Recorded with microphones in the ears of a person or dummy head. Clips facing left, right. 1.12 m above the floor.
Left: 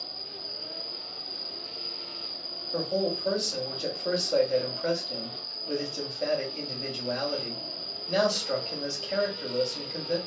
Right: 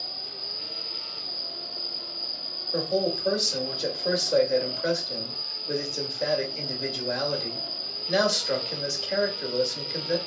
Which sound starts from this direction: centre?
An insect, at 0.0 s.